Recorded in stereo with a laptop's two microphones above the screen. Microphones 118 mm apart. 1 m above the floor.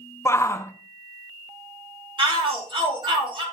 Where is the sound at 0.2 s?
20° left (ahead or behind), 0.6 m.